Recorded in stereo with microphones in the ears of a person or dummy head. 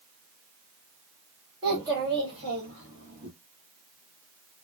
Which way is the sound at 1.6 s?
15° right (ahead or behind).